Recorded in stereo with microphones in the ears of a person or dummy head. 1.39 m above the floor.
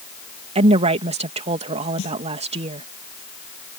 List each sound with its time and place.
0.6 s a woman speaking: 35° right (ahead or behind)
2.0 s a snare drum: 80° left